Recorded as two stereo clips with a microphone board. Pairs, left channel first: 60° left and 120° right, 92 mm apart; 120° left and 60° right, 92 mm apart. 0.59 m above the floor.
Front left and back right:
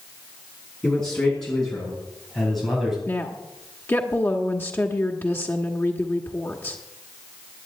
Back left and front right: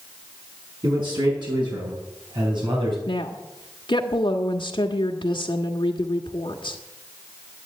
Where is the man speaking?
20° right, 6.5 m; by 3.0 s 35° right, 4 m.